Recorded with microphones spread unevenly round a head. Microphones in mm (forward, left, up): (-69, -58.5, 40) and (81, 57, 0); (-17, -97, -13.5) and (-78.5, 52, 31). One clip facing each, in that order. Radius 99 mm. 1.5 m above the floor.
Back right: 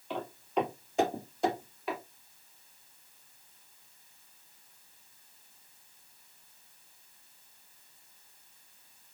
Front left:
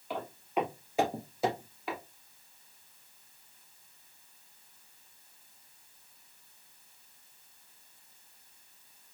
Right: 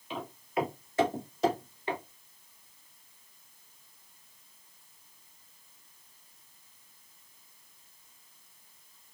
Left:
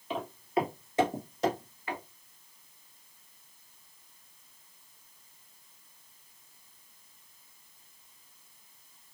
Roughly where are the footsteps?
Behind left.